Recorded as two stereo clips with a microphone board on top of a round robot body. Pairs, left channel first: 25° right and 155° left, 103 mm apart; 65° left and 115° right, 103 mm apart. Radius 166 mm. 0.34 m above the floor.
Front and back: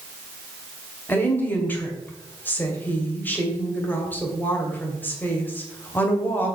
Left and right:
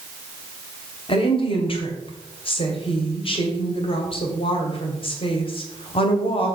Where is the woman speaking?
50° left, 2.5 m.